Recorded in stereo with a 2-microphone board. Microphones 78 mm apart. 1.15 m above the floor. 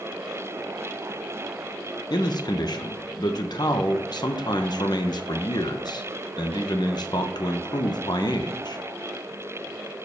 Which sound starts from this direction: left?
A man speaking, at 2.1 s.